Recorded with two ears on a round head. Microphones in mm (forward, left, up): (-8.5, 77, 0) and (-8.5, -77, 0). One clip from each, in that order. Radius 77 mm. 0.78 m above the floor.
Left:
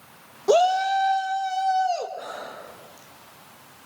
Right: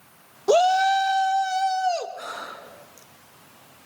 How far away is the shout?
About 0.6 m.